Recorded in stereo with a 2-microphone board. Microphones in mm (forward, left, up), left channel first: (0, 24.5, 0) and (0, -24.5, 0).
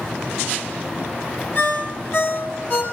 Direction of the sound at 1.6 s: 55° left (ahead or behind).